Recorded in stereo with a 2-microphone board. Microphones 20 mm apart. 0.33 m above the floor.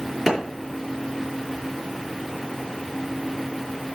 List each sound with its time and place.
0.3 s a clap: 5° right (ahead or behind), 6 m